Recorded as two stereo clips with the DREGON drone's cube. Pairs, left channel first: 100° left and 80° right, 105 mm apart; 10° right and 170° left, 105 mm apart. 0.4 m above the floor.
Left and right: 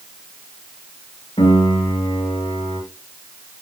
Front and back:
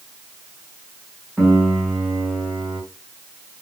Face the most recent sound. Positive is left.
turn(degrees=90)